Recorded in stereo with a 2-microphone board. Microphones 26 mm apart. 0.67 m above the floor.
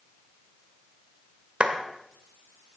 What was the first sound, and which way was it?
A clap, 55° right (ahead or behind).